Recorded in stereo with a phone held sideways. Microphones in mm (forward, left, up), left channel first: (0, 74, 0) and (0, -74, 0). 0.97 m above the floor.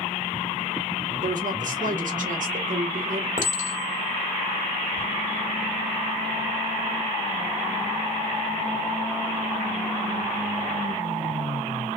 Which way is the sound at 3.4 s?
65° left (ahead or behind).